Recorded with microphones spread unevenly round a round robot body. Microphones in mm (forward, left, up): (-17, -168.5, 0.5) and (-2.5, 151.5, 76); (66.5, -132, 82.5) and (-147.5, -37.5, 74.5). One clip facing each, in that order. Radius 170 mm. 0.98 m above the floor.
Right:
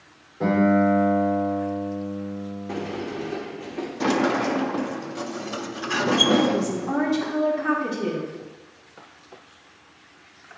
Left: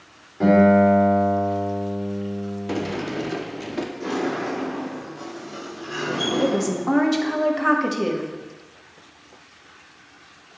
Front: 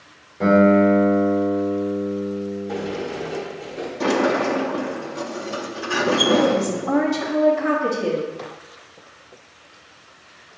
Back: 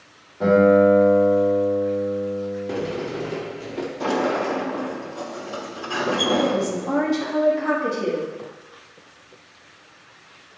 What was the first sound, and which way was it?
A guitar, 50° left.